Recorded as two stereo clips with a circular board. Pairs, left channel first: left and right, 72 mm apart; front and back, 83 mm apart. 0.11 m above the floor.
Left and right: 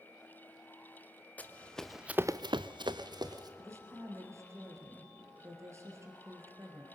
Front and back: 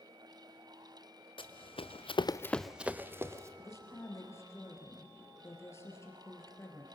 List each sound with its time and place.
1.4 s running footsteps: 20° left, 1.4 m; by 3.5 s 120° right, 1.6 m
3.6 s a woman speaking: 50° right, 2.5 m